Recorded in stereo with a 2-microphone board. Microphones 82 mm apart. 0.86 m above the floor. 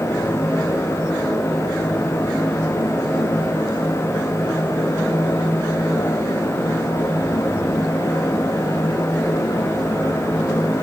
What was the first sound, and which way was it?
Only background noise.